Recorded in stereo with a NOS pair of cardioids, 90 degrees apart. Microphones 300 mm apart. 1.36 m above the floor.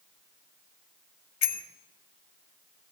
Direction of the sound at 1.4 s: 60° left.